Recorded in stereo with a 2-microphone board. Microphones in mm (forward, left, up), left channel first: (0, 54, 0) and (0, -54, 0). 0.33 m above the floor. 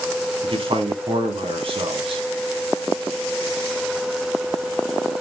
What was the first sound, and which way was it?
A man speaking, 55° right (ahead or behind).